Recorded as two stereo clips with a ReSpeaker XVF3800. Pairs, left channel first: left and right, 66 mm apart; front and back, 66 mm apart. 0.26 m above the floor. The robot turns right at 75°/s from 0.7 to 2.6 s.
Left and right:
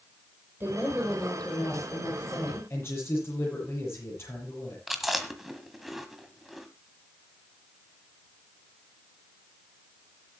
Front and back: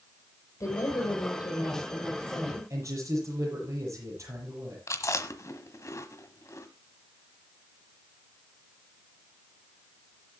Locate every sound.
0.6 s a woman speaking: 35° right, 9 m; by 2.6 s 110° left, 9 m
2.7 s a man speaking: 140° left, 8 m
4.9 s chewing: straight ahead, 1.5 m